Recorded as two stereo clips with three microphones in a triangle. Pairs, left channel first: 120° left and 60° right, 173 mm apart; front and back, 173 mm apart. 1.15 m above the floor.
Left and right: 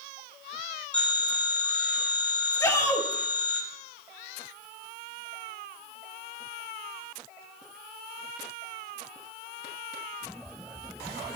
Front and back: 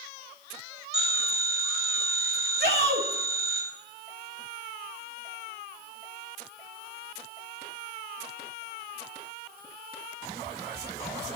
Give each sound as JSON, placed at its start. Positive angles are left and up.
{"t": 0.9, "sound": "a phone ringing", "azimuth_deg": -155, "distance_m": 6.5}
{"t": 2.6, "sound": "a shout", "azimuth_deg": -170, "distance_m": 2.5}